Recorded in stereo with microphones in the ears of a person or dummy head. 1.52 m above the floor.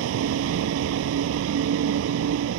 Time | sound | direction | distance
0.0 | a vehicle | 85° right | ?